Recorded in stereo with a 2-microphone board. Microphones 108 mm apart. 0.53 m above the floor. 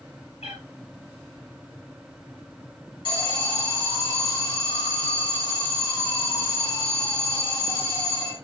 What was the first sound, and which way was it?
A cat meowing, 90° left.